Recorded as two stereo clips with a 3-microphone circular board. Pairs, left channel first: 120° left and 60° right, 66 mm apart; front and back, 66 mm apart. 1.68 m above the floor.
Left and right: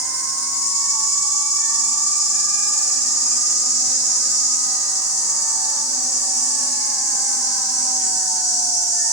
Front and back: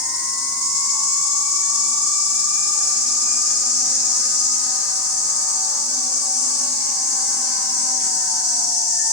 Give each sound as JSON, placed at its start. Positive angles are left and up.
{"t": 0.0, "sound": "an insect", "azimuth_deg": 105, "distance_m": 1.7}